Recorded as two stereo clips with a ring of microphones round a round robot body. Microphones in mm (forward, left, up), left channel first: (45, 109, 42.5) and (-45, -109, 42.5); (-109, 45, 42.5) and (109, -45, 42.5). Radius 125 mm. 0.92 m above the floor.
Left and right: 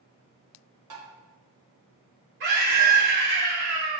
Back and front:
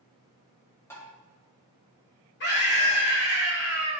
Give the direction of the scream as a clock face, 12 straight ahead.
5 o'clock.